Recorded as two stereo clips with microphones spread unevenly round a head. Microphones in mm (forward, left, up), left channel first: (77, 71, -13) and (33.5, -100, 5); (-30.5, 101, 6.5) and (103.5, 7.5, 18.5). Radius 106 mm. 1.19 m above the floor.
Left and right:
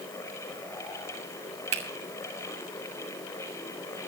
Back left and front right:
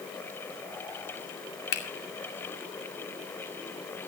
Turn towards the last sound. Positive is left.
turn(degrees=-165)